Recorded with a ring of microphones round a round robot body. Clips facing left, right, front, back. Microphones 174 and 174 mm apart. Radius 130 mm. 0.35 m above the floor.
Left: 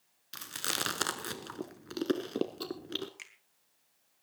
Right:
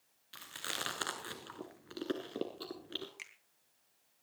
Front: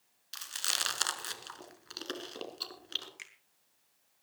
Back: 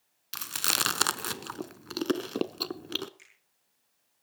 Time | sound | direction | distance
0.3 | chewing | 150° left | 1.0 m
3.2 | a finger snap | straight ahead | 3.5 m